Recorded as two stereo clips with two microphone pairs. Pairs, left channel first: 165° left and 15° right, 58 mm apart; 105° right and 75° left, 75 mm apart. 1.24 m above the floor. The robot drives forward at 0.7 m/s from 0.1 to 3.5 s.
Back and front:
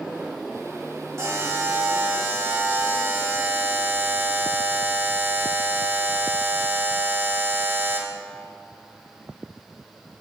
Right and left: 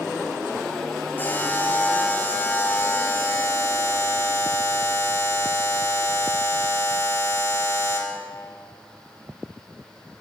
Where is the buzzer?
45° right, 6 m; by 8.2 s 60° right, 5 m.